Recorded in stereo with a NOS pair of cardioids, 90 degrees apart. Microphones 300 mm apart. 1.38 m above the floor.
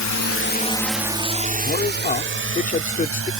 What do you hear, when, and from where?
0.0 s a drone: 70° left; by 3.4 s 45° right
1.6 s a man speaking: 25° left